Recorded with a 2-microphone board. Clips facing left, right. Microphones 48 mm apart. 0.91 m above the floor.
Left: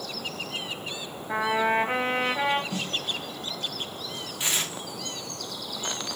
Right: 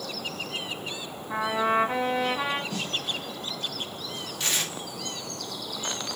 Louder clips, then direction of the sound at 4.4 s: Even; 20° left (ahead or behind).